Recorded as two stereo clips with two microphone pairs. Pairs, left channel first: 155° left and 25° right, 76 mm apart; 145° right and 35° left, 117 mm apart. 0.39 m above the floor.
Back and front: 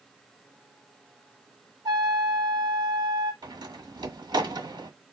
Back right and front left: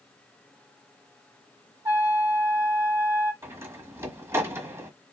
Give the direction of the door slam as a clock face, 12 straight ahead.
1 o'clock.